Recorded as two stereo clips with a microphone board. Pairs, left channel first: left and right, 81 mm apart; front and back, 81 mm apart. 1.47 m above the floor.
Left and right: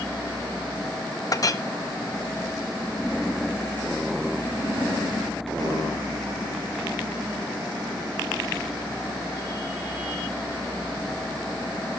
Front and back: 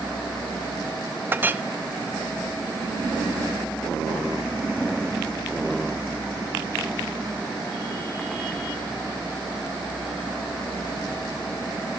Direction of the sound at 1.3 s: 120° left.